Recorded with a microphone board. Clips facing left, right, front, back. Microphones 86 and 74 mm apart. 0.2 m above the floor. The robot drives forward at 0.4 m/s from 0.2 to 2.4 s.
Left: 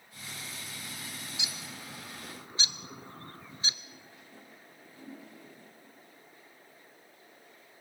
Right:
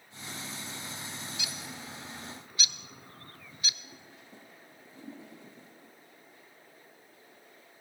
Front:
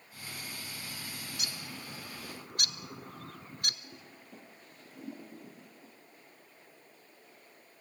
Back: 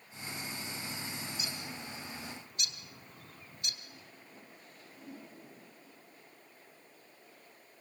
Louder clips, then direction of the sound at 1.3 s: Right 1 dB, back 1 dB; 20° left.